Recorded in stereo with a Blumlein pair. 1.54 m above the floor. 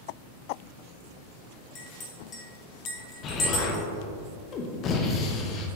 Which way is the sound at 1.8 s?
30° left.